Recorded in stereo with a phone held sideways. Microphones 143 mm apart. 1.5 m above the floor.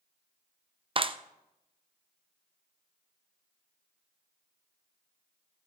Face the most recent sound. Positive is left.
turn(degrees=-40)  # may be behind; listen again after turning